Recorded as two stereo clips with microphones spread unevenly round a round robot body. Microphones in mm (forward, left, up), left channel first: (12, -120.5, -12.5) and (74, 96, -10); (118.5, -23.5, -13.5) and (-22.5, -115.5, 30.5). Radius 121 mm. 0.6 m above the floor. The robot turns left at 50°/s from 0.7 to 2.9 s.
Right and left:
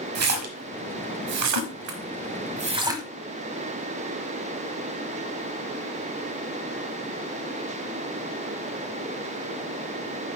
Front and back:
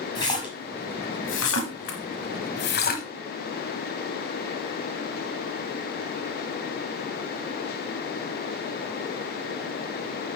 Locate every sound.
0.1 s a splash: 110° left, 1.3 m; by 3.0 s straight ahead, 1.3 m